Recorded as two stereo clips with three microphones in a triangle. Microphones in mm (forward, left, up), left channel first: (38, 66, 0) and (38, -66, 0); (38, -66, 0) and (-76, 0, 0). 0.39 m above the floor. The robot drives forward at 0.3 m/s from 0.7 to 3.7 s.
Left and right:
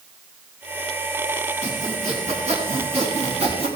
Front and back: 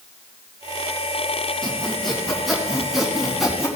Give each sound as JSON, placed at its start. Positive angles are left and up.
{"t": 1.6, "sound": "sawing", "azimuth_deg": -115, "distance_m": 3.0}